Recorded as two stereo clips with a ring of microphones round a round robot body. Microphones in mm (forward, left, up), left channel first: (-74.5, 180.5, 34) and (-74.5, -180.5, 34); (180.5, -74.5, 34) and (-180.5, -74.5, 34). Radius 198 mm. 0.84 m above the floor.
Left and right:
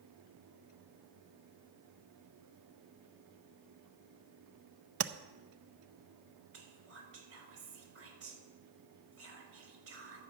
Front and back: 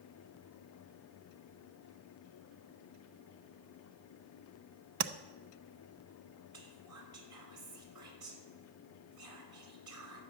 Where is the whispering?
140° right, 5.5 m.